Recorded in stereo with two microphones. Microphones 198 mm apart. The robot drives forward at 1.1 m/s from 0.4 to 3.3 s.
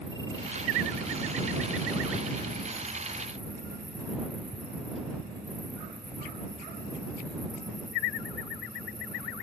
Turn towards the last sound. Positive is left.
turn(degrees=-50)  # may be behind; listen again after turning